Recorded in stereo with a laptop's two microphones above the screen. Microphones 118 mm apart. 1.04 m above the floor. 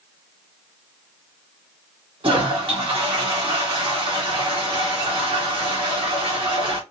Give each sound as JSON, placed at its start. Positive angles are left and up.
{"t": 2.2, "sound": "a toilet flushing", "side_deg": -45, "distance_m": 1.7}